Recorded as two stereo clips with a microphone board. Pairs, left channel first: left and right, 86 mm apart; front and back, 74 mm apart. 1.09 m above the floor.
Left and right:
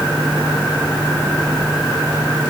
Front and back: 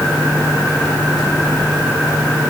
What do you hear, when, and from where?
Only background noise.